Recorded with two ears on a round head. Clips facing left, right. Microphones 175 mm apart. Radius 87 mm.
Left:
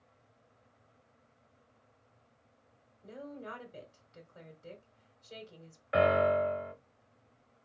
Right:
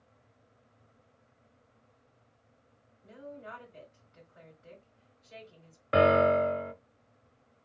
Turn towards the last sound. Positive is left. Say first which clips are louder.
# right 4 dB
turn(degrees=-50)  # may be behind; listen again after turning